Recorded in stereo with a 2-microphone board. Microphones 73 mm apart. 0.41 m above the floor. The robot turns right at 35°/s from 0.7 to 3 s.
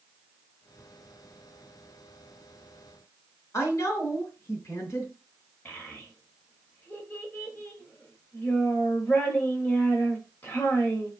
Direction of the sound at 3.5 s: 45° left (ahead or behind).